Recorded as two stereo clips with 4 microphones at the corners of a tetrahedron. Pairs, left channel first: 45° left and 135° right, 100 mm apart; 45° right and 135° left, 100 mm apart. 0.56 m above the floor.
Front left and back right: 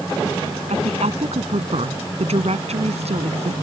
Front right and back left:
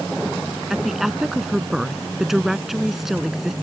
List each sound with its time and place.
0.7 s a woman speaking: 140° right